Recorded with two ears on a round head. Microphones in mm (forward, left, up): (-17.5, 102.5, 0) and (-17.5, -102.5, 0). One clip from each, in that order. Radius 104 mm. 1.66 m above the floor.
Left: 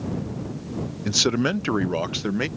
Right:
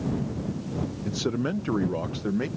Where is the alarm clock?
I don't hear an alarm clock.